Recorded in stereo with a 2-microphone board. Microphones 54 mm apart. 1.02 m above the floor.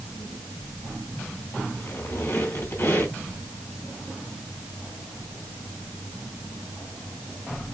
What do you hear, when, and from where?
1.8 s a squeak: 55° left (ahead or behind), 2.5 m